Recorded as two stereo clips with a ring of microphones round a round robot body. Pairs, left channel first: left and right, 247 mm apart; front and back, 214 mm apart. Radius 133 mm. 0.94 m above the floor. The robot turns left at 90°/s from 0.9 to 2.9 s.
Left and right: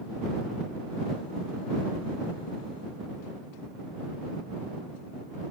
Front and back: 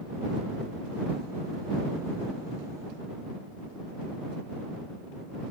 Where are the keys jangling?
No keys jangling in this recording.